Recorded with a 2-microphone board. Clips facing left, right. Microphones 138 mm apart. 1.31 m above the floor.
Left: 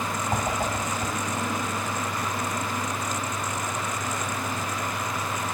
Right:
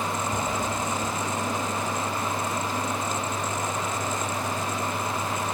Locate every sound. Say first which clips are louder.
0.3 s a whoosh: left 1 dB; 65° left (ahead or behind), 8.5 m